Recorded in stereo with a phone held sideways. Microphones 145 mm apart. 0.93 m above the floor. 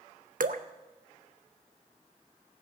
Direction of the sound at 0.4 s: 70° right (ahead or behind).